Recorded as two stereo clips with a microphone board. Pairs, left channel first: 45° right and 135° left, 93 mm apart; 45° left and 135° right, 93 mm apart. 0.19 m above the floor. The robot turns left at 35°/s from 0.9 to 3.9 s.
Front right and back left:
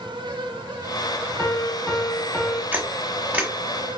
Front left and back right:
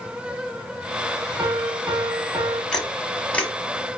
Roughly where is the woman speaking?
No woman speaking in this recording.